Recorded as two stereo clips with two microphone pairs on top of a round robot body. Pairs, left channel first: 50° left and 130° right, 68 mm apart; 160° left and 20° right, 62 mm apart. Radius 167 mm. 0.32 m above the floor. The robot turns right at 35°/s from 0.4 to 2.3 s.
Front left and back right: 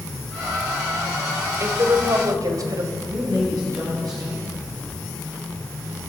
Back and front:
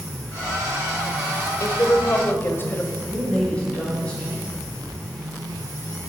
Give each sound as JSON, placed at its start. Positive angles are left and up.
{"t": 1.6, "sound": "a woman speaking", "azimuth_deg": -170, "distance_m": 2.0}
{"t": 3.1, "sound": "a woman speaking", "azimuth_deg": -130, "distance_m": 4.5}